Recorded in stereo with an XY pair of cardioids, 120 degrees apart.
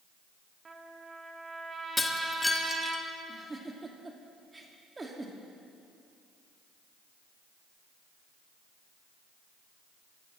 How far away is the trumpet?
About 2.5 m.